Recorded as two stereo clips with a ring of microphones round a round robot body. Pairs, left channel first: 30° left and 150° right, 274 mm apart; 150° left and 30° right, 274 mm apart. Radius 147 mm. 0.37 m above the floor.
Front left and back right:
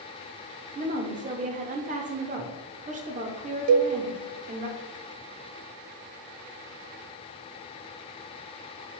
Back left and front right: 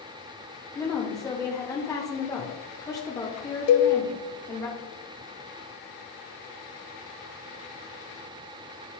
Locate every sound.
0.8 s a woman speaking: 145° right, 0.9 m
3.7 s a cowbell: 175° right, 0.6 m